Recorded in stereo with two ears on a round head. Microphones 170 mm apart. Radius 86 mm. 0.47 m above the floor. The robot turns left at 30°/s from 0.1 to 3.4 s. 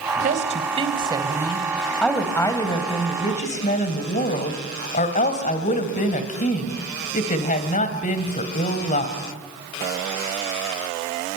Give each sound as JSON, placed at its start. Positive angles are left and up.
{"t": 0.2, "sound": "a woman speaking", "azimuth_deg": -130, "distance_m": 2.5}